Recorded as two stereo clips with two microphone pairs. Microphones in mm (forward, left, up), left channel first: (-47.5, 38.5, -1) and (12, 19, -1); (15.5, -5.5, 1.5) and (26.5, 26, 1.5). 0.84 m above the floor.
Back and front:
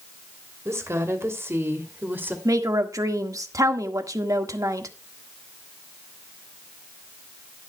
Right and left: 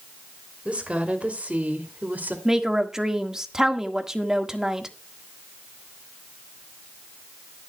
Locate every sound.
0.7 s a woman speaking: 20° left, 3 m; by 2.4 s 40° left, 2.5 m
2.5 s a woman speaking: straight ahead, 1.5 m